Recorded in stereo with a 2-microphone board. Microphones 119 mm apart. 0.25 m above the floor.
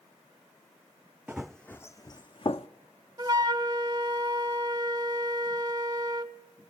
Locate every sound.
1.3 s running footsteps: 10° right (ahead or behind), 0.6 m; by 2.7 s 55° left (ahead or behind), 0.8 m
3.2 s a flute: 35° right (ahead or behind), 0.7 m